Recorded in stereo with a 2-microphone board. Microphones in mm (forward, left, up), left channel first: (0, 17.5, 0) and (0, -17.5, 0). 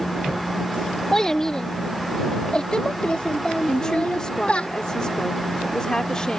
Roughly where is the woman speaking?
Left.